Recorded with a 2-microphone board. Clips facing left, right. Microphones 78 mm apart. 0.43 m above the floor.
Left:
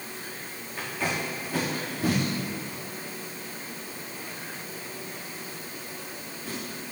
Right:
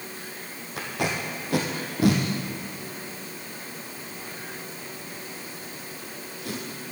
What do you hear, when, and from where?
0.8 s tape being pulled: 80° right, 2.5 m